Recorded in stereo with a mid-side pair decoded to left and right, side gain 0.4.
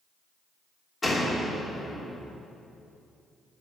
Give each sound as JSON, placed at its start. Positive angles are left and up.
{"t": 1.0, "sound": "a door slam", "azimuth_deg": 35, "distance_m": 3.0}